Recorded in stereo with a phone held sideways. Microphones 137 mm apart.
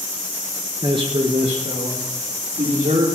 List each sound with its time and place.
0.8 s a man speaking: 30° right (ahead or behind), 1.0 m; by 3.1 s 65° right (ahead or behind), 3.5 m